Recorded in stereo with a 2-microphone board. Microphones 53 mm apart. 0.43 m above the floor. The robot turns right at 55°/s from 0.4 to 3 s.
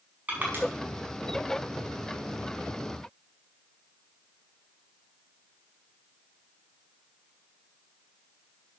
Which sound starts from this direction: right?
Crushing, at 0.3 s.